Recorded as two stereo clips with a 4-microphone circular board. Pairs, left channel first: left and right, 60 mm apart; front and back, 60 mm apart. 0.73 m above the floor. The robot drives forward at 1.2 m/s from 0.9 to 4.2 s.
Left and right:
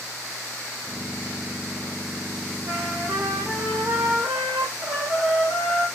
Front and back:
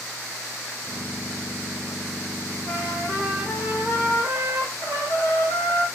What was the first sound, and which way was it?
A trumpet, 100° right.